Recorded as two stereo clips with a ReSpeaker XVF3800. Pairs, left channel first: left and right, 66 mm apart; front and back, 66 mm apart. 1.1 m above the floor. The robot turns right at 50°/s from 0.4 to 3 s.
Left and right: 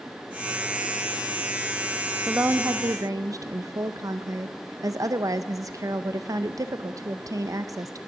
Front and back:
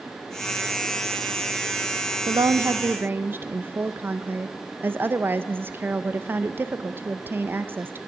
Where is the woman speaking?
155° right, 0.6 m; by 8.0 s 120° right, 0.6 m.